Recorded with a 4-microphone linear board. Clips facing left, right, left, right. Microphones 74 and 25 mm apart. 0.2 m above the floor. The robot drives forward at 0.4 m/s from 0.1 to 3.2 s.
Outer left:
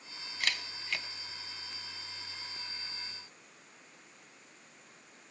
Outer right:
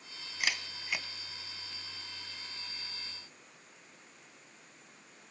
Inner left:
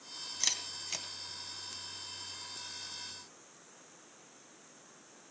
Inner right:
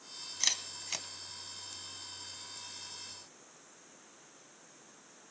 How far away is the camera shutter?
About 1.0 m.